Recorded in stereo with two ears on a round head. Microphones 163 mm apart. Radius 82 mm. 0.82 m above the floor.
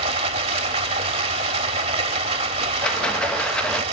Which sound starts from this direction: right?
Running water, at 0.0 s.